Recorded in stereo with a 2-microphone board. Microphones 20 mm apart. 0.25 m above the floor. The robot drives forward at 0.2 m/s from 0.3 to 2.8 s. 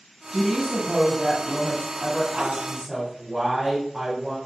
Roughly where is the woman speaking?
Centre.